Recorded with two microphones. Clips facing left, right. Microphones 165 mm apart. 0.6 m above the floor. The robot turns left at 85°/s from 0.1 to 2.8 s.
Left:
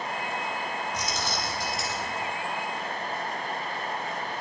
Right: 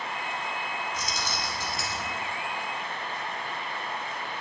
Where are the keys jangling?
70° left, 3.5 m; by 2.1 s 30° right, 3.5 m.